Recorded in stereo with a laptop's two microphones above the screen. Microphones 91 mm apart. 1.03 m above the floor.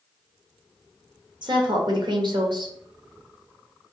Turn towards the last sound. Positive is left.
turn(degrees=-55)  # may be behind; listen again after turning